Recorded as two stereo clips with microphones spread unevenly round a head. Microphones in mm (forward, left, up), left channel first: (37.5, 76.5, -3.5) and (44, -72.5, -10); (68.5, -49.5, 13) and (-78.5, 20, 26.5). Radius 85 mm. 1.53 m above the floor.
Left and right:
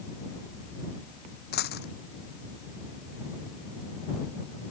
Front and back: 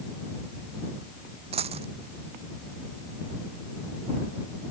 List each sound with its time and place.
1.5 s a dropped coin: 100° left